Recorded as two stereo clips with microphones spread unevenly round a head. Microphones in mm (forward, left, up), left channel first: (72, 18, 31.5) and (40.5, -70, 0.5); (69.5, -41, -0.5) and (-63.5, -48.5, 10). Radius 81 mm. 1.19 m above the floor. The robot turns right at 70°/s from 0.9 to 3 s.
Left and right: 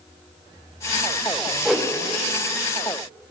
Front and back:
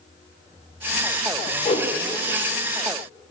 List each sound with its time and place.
1.6 s a whoosh: 35° right, 0.8 m; by 1.9 s 15° right, 0.8 m